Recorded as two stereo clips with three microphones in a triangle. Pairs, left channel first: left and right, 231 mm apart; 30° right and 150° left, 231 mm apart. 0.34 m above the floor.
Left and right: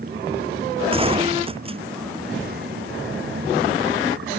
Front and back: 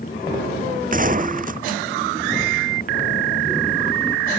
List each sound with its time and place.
0.9 s a gunshot: 155° right